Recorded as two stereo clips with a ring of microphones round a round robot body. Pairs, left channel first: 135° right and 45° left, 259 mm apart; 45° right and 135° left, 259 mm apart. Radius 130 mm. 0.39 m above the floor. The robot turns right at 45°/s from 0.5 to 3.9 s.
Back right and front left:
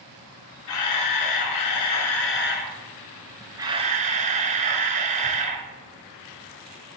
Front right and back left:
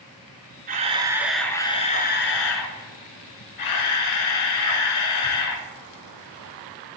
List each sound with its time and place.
0.7 s a camera shutter: 165° right, 1.2 m; by 5.7 s 20° right, 1.2 m